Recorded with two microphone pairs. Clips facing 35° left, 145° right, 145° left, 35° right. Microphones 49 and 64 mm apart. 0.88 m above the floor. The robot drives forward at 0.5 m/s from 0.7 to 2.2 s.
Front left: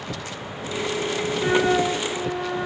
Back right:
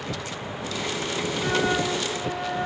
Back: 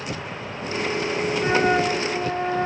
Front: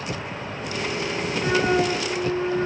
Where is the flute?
100° left, 1.5 m; by 2.7 s 115° left, 1.6 m.